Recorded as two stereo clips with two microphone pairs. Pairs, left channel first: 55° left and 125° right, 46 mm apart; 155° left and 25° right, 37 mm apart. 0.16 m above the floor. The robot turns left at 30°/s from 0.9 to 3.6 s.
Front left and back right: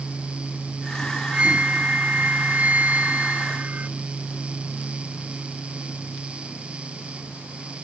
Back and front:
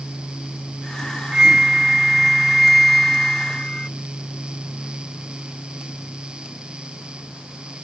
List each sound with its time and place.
1.3 s a flute: 80° right; by 3.9 s 145° right